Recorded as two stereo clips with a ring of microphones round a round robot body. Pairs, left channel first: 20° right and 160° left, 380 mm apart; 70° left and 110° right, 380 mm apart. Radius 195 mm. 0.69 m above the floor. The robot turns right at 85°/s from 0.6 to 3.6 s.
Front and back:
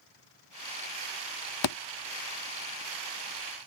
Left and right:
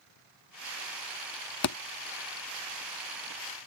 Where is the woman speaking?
No woman speaking in this recording.